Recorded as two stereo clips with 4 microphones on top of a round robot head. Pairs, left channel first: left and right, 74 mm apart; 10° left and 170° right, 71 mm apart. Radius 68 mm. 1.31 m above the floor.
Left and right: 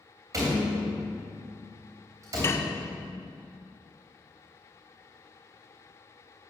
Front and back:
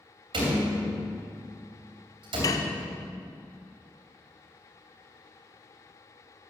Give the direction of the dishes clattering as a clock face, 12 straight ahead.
11 o'clock.